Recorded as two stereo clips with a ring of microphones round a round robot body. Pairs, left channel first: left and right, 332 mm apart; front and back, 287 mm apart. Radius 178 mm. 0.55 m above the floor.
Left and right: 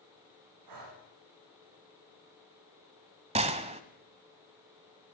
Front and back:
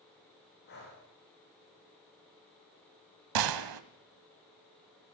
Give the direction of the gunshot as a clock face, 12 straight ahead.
5 o'clock.